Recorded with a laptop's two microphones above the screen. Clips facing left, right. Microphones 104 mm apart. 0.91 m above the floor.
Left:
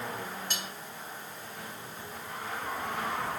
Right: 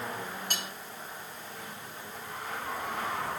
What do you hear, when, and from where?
0.5 s cutlery clinking: 50° right (ahead or behind), 1.3 m